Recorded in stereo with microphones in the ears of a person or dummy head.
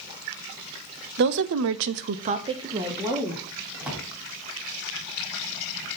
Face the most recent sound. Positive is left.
turn(degrees=-10)  # may be behind; listen again after turning